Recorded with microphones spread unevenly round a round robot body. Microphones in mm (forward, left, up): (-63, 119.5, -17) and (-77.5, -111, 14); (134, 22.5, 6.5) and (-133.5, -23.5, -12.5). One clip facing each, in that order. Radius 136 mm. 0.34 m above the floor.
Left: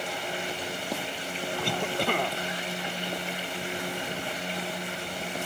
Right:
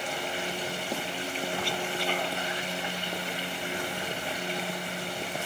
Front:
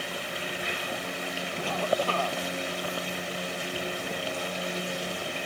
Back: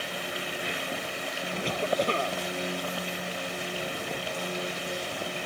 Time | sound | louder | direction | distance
1.6 | a cough | left 3 dB, back 1 dB | 120° left | ?